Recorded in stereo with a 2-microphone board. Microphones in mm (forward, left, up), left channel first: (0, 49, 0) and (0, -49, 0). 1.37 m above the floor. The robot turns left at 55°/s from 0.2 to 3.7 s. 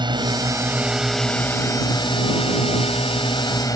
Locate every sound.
0.0 s a drone: 130° right; by 3.8 s 40° left